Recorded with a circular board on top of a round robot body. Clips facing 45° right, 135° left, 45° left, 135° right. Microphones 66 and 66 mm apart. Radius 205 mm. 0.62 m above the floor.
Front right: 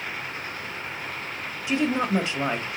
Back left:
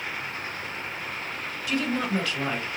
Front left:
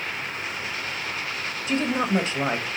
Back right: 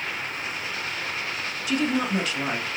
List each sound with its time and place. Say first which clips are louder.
1.7 s a woman speaking: front right 3 dB, front left 1 dB; 10° left, 1.3 m